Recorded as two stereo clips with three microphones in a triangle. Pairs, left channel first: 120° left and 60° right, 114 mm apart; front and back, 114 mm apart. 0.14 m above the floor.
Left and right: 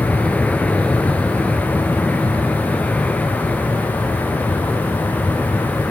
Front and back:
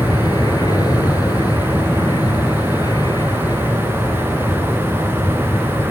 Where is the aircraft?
45° left.